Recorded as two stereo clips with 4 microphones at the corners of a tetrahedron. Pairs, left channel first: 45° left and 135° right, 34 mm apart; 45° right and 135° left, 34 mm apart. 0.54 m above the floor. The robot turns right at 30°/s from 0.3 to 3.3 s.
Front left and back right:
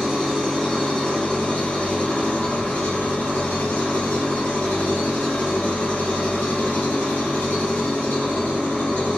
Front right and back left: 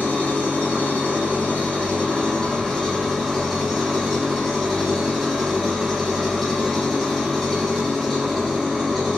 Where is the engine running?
45° right, 1.3 m; by 9.2 s 45° left, 1.3 m.